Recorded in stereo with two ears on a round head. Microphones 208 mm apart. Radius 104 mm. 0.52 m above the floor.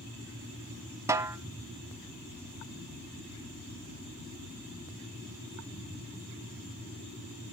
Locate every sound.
1.1 s a snare drum: 15° right (ahead or behind), 0.7 m